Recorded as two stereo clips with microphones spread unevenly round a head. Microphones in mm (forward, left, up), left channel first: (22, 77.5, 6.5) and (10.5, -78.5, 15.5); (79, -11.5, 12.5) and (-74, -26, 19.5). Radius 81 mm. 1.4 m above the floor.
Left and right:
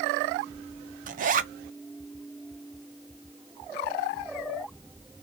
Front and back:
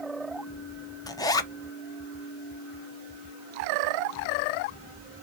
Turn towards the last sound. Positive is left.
turn(degrees=-60)